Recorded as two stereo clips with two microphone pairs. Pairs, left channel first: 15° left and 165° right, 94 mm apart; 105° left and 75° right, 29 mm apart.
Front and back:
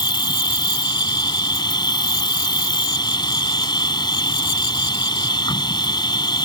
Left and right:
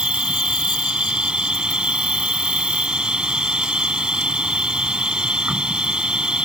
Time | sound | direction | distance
0.0 | an insect | 25° right | ?